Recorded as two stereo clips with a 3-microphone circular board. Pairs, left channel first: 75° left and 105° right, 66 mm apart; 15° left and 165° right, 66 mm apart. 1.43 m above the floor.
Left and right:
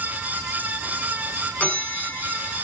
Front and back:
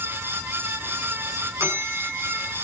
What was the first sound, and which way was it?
A bell, 145° left.